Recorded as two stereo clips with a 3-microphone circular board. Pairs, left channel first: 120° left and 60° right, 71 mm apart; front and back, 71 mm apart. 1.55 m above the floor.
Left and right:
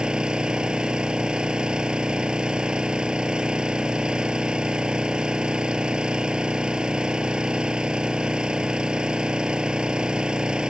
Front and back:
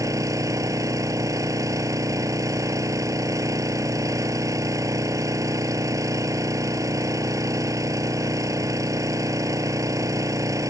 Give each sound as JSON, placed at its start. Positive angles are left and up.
{"t": 0.0, "sound": "an engine running", "azimuth_deg": -140}